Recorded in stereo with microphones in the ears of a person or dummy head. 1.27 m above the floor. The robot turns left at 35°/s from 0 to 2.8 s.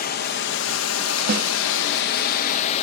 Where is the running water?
135° left, 1.2 m; by 2.8 s 40° left, 1.2 m.